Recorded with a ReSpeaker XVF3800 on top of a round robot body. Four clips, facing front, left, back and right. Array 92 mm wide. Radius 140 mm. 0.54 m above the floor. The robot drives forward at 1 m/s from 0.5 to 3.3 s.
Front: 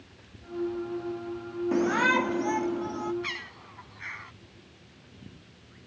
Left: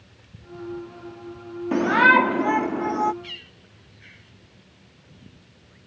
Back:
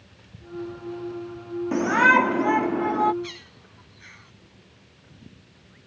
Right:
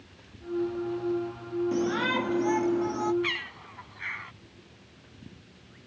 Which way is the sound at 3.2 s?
60° right.